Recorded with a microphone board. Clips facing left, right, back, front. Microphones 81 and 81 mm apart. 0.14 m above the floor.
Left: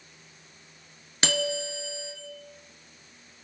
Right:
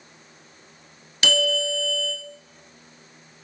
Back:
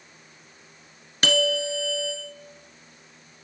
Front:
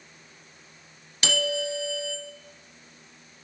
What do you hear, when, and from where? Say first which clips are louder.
1.2 s a bell: right 5 dB, back 4 dB; 140° left, 1.6 m